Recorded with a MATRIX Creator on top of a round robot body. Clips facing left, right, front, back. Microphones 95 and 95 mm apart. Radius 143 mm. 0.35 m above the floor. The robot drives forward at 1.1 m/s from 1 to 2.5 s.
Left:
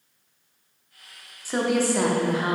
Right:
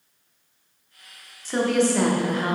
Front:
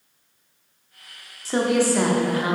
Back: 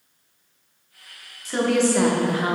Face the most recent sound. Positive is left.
turn(degrees=165)